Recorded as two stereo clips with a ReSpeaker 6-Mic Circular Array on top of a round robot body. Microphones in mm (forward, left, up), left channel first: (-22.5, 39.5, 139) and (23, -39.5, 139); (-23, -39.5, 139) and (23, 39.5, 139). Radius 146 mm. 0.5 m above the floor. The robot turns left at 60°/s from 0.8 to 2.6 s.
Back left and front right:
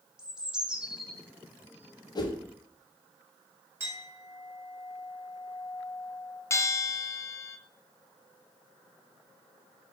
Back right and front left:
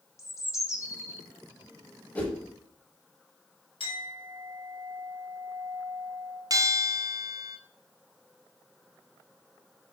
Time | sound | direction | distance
0.2 | a bird | 135° right | 1.4 m
2.1 | a whoosh | 170° left | 1.0 m
3.8 | a clink | 125° right | 2.5 m
6.5 | a bell | 80° left | 0.9 m